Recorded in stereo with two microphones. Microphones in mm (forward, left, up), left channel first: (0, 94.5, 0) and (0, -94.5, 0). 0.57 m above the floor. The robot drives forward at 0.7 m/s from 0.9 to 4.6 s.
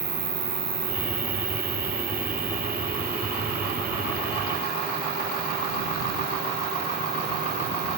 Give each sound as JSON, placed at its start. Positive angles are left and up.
{"t": 0.0, "sound": "an insect", "side_deg": -55}